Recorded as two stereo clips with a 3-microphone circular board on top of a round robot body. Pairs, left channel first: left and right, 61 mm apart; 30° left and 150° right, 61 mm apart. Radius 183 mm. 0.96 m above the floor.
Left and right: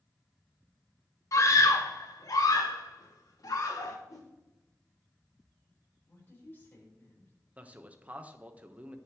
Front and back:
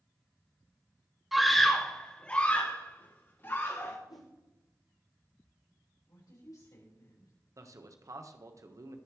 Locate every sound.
1.3 s a scream: 120° left, 2 m; by 4.0 s 75° left, 3.5 m
4.1 s a whoosh: 50° left, 0.8 m
6.1 s a woman speaking: 35° left, 5.5 m
7.6 s a man speaking: 155° right, 1.5 m